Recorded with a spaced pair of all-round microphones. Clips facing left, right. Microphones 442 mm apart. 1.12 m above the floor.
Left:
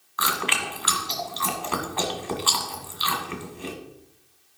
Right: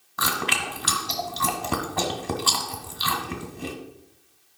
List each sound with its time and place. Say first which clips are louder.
0.2 s chewing: right 1 dB; 60° right (ahead or behind), 1.7 m